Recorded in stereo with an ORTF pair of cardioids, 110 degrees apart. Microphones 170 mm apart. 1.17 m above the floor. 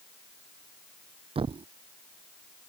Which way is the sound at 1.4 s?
30° right.